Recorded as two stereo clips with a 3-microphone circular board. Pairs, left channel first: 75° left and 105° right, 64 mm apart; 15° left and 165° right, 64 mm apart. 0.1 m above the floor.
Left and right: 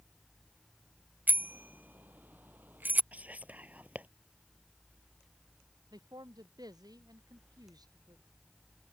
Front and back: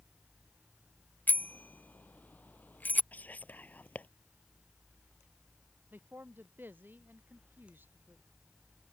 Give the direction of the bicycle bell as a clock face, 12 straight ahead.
2 o'clock.